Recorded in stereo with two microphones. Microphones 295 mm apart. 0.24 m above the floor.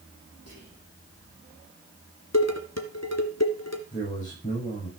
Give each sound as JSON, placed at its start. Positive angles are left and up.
{"t": 0.5, "sound": "whispering", "side_deg": 65, "distance_m": 7.0}
{"t": 2.3, "sound": "dishes clattering", "side_deg": 65, "distance_m": 2.0}
{"t": 3.9, "sound": "a man speaking", "side_deg": 25, "distance_m": 8.0}